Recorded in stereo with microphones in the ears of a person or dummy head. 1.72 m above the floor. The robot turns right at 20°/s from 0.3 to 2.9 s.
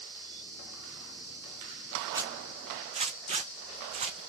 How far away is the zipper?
About 0.7 m.